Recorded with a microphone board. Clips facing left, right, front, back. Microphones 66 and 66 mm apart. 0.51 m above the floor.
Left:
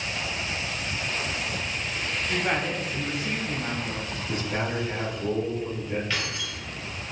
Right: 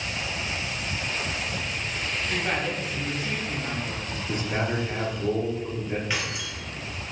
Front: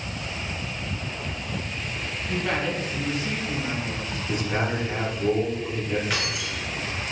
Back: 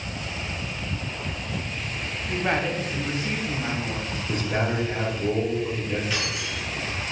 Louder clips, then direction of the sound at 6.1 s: Even, front 1 dB; 15° right.